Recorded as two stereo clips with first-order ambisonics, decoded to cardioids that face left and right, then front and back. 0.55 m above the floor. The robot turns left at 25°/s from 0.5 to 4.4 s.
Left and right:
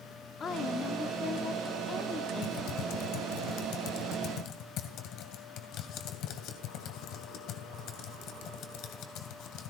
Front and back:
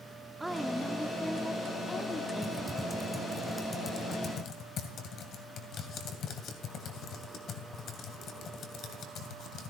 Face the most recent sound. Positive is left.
turn(degrees=55)